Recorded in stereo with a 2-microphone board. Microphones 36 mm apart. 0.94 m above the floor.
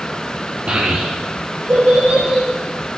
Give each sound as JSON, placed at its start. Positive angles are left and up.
{"t": 0.7, "sound": "a child speaking", "side_deg": -50, "distance_m": 0.8}